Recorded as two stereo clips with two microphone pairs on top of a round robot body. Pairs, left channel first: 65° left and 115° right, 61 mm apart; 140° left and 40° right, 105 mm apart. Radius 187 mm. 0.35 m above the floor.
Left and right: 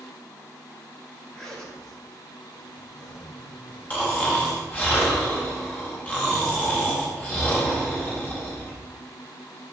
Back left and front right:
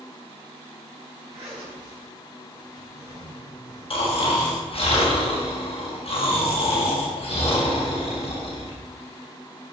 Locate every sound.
1.3 s a zipper: 15° right, 5 m
3.9 s snoring: 125° left, 4.5 m